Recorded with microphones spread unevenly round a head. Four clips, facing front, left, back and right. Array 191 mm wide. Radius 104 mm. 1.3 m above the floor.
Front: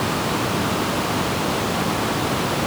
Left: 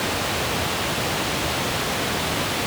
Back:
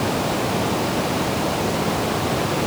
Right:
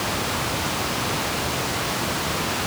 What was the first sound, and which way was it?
Only background noise.